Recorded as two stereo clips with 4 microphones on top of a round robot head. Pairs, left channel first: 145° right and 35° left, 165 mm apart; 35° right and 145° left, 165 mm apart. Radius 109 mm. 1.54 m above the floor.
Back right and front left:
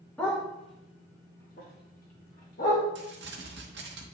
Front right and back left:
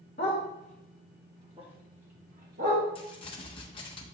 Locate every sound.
0.2 s a dog barking: 65° right, 1.0 m; by 2.9 s straight behind, 1.8 m
3.0 s crumpling: 20° left, 0.8 m